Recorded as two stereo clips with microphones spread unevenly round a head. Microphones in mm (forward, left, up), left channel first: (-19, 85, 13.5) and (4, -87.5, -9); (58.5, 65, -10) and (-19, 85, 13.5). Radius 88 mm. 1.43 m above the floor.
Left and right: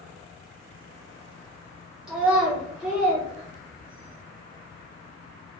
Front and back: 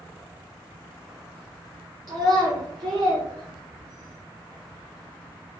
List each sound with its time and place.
2.1 s a child speaking: 170° right, 0.7 m